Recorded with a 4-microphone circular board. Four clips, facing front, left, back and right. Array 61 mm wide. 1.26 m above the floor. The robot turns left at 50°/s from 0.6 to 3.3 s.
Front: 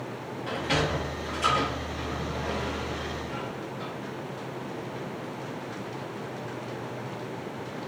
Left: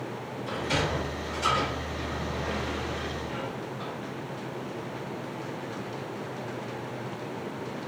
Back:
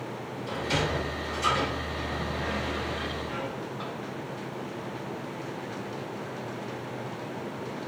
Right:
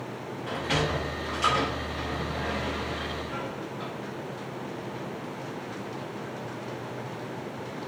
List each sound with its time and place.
0.5 s a sliding door: 35° right, 1.6 m; by 3.9 s 170° right, 1.6 m